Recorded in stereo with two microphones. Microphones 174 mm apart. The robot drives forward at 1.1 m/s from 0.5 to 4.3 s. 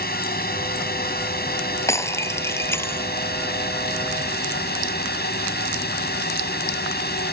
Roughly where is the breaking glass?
Centre.